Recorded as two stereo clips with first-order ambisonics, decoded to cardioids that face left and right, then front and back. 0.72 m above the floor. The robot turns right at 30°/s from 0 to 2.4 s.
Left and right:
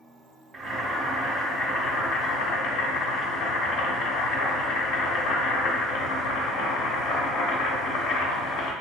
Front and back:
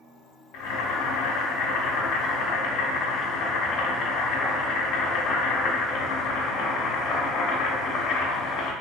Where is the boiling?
10° right, 0.9 m; by 8.7 s 50° left, 0.9 m.